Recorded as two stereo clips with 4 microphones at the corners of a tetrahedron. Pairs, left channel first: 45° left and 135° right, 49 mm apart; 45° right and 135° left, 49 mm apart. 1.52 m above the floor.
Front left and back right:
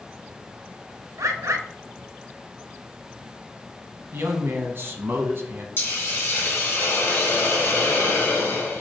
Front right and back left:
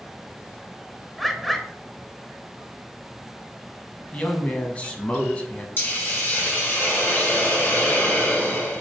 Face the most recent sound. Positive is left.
turn(degrees=5)